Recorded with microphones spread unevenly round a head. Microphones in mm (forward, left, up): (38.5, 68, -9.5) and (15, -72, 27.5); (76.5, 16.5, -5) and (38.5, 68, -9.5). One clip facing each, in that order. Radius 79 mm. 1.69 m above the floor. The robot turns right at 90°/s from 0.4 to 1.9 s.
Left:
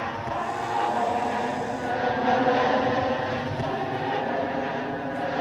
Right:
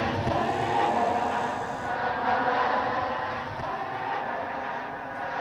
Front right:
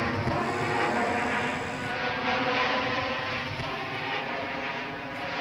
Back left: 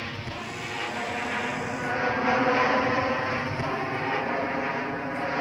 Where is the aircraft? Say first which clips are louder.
Right 3 dB, front right 8 dB; 60° right; by 5.4 s 75° left.